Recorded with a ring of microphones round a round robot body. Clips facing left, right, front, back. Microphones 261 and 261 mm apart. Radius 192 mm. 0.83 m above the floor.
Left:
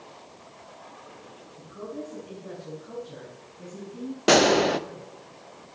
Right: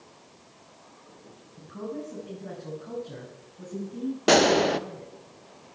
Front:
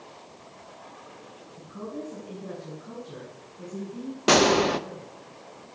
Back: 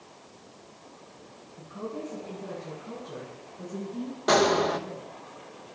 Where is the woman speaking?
70° right, 6.5 m; by 5.1 s 90° right, 5.5 m.